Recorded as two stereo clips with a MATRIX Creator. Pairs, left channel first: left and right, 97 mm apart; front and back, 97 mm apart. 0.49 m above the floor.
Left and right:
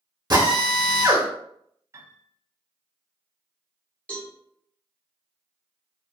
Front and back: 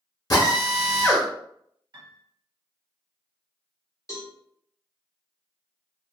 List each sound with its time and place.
0.3 s a drill: 45° right, 1.0 m
1.9 s a piano: 140° right, 0.6 m
4.1 s a cowbell: 25° left, 1.1 m